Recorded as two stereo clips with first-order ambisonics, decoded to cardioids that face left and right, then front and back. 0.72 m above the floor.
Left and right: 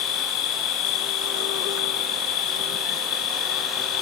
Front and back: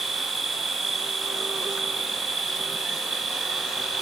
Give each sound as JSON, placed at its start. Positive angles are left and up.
{"t": 0.0, "sound": "an insect", "azimuth_deg": 105}